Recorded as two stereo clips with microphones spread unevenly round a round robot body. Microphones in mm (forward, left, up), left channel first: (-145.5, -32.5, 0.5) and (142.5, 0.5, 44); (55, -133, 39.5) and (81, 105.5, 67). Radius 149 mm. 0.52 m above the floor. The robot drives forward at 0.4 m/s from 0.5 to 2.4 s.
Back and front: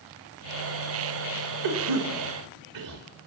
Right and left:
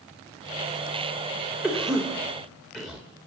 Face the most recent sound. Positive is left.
turn(degrees=-5)